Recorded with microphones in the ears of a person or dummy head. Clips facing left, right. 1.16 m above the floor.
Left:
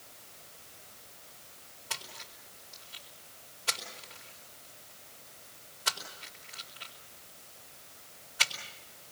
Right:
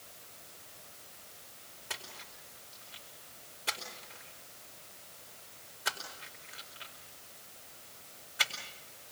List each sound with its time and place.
1.9 s a splash: 30° right (ahead or behind), 4.5 m